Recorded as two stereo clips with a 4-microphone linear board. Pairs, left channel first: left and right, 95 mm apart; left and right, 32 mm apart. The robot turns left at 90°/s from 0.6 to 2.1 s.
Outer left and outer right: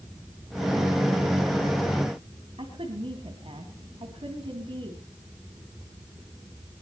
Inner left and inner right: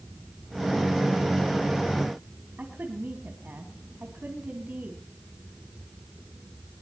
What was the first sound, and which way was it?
A woman speaking, 65° right (ahead or behind).